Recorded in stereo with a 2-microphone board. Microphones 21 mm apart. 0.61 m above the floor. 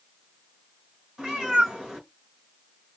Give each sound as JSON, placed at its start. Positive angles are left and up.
{"t": 1.2, "sound": "a cat meowing", "side_deg": -45, "distance_m": 2.5}